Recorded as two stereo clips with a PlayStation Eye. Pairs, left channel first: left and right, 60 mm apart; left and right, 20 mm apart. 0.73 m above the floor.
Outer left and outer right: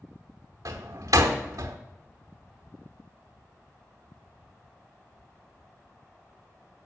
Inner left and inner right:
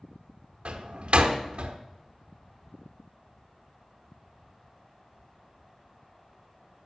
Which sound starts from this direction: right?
A door slam, at 0.7 s.